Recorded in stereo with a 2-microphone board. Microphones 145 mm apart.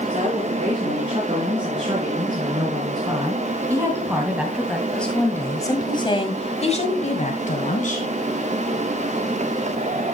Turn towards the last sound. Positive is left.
turn(degrees=65)  # may be behind; listen again after turning